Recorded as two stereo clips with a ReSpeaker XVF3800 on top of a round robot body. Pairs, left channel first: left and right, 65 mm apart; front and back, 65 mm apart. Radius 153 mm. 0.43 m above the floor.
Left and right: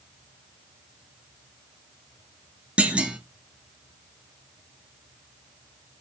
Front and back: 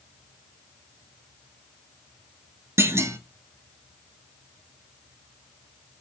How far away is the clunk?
About 0.6 m.